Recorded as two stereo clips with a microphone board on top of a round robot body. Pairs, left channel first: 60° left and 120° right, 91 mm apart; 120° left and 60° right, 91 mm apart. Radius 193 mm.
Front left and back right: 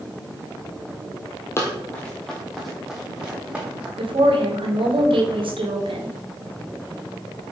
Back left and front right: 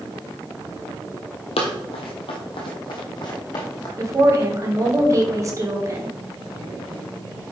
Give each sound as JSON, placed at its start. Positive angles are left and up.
{"t": 1.6, "sound": "running footsteps", "azimuth_deg": 120, "distance_m": 1.3}
{"t": 4.0, "sound": "a woman speaking", "azimuth_deg": -115, "distance_m": 2.5}